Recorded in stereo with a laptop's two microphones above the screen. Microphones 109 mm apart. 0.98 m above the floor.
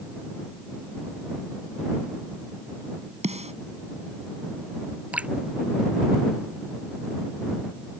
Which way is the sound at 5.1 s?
10° right (ahead or behind).